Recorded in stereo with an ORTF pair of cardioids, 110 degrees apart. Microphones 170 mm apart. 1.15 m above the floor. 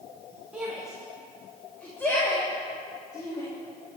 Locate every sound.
0.5 s a shout: 10° right, 2.5 m; by 3.5 s 25° left, 3 m